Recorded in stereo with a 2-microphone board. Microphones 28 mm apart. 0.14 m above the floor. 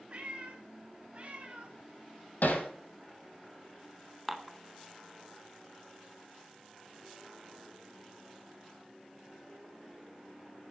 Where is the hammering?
80° left, 2 m.